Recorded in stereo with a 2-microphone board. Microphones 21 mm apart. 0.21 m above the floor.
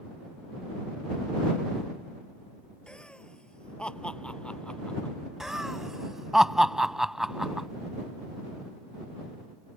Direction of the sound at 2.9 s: 50° left (ahead or behind).